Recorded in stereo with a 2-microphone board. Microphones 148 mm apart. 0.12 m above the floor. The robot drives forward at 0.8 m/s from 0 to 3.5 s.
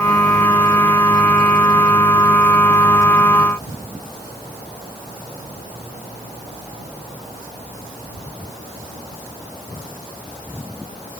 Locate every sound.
Only background noise.